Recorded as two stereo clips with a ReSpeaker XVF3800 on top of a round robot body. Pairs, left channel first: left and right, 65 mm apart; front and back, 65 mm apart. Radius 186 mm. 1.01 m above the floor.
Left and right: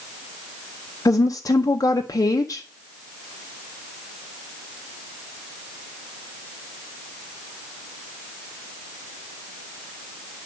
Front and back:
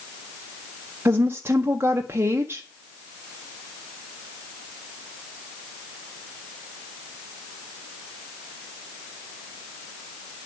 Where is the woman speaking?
125° left, 0.8 m.